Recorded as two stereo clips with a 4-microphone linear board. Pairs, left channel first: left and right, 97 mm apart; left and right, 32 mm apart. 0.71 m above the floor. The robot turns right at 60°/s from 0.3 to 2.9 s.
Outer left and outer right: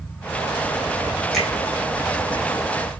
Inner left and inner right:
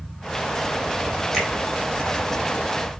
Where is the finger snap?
Centre (ahead or behind), 3 m; by 1.5 s 5° right (ahead or behind), 3 m.